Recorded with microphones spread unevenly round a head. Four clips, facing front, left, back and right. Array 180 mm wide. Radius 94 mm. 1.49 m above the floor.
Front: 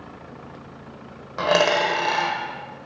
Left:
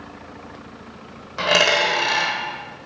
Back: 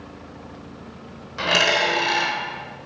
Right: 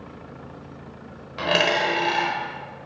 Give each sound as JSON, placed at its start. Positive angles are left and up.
{"t": 1.4, "sound": "a dropped coin", "azimuth_deg": 20, "distance_m": 1.4}